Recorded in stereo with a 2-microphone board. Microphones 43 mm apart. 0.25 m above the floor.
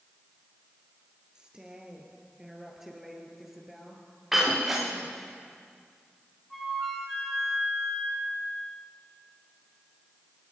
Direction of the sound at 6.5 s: 5° left (ahead or behind).